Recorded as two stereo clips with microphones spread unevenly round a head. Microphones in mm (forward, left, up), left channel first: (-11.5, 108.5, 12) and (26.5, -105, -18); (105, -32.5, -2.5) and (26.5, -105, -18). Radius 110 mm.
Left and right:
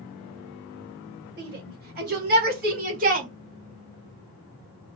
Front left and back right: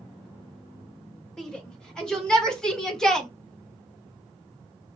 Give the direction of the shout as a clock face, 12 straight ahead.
1 o'clock.